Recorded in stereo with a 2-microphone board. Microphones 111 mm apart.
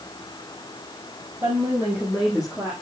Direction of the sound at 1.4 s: 15° right (ahead or behind).